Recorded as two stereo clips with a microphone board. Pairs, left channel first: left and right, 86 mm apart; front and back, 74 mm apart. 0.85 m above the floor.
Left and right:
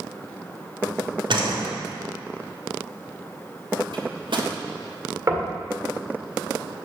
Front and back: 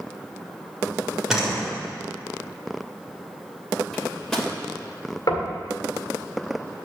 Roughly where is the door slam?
Right.